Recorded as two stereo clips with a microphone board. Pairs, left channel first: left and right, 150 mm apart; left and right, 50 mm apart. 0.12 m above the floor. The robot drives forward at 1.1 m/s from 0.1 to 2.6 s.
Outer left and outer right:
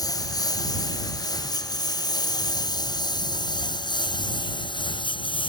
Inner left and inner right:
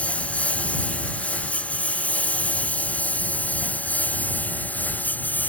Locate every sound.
0.0 s a lawn mower: 25° left (ahead or behind); by 5.5 s 35° left (ahead or behind)